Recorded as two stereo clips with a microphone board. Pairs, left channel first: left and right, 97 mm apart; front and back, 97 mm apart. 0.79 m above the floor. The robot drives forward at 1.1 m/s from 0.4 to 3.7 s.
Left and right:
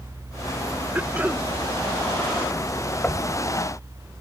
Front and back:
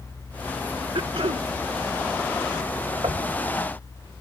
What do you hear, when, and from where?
0.9 s throat clearing: 160° right; by 1.5 s 165° right
3.0 s knocking: 160° left; by 3.3 s 165° left